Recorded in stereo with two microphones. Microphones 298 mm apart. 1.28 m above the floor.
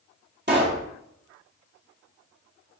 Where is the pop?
35° right (ahead or behind), 1.8 m.